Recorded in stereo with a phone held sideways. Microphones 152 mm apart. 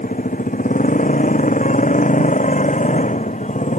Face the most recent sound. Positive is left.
turn(degrees=55)  # may be behind; listen again after turning